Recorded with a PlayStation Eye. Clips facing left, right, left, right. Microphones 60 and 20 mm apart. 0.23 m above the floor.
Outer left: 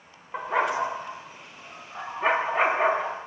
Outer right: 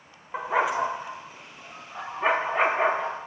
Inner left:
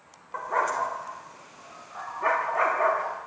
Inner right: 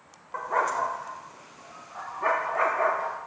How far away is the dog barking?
About 4 m.